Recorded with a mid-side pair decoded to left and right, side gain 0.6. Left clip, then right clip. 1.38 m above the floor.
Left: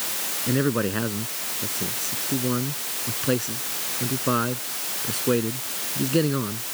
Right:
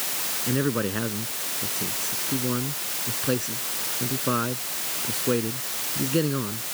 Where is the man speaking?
10° left.